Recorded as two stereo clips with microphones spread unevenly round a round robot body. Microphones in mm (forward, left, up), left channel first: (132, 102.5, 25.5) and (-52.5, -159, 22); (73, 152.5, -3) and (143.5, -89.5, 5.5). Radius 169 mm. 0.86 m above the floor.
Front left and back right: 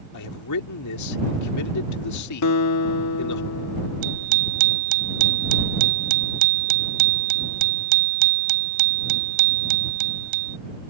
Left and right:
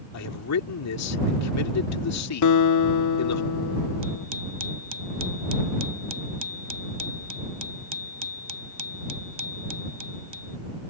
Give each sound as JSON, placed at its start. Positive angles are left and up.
{"t": 0.1, "sound": "a man speaking", "azimuth_deg": 95}
{"t": 2.4, "sound": "a guitar", "azimuth_deg": 100}
{"t": 4.0, "sound": "a bicycle bell", "azimuth_deg": -150}